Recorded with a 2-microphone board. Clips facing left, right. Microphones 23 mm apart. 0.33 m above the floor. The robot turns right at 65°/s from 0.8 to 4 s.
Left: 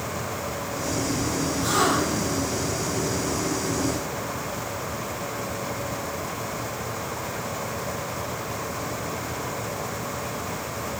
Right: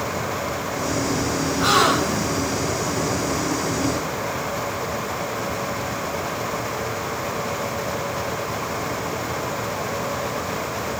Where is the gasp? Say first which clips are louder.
Right 5 dB; 105° right, 3.5 m; by 2.3 s 60° right, 3.5 m.